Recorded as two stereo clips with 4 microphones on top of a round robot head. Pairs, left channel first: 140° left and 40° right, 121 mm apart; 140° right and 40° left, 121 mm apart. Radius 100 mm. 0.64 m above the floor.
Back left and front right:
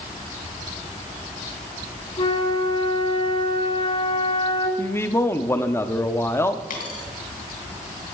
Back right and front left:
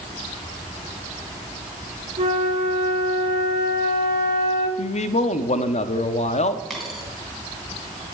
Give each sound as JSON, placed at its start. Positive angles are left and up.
{"t": 2.2, "sound": "a flute", "azimuth_deg": 90, "distance_m": 1.9}
{"t": 4.8, "sound": "a man speaking", "azimuth_deg": -155, "distance_m": 1.0}
{"t": 6.7, "sound": "a dropped coin", "azimuth_deg": 130, "distance_m": 3.0}